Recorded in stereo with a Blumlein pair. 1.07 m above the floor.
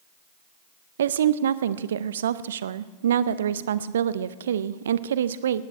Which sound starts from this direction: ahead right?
A woman speaking, at 1.0 s.